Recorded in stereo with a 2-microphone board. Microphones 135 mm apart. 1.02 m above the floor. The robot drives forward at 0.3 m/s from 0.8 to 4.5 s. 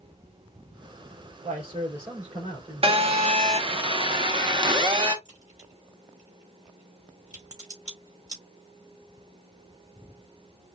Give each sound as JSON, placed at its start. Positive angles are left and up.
{"t": 1.4, "sound": "a man speaking", "side_deg": -55, "distance_m": 3.0}
{"t": 2.8, "sound": "a phone buzzing", "side_deg": -45, "distance_m": 0.9}
{"t": 5.2, "sound": "a crack", "side_deg": -30, "distance_m": 3.5}